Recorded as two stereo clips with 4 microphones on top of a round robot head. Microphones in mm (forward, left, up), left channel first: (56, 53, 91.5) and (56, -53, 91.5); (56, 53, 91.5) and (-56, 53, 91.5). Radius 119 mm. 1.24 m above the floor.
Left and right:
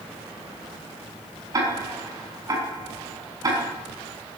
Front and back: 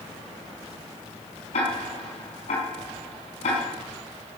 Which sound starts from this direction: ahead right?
Ticking, at 1.5 s.